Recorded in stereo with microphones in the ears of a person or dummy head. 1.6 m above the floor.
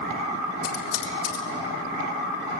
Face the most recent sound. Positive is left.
turn(degrees=85)